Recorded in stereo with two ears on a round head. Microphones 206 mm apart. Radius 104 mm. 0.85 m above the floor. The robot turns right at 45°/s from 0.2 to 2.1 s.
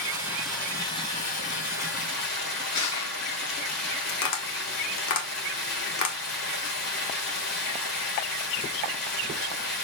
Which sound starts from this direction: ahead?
Running water, at 0.0 s.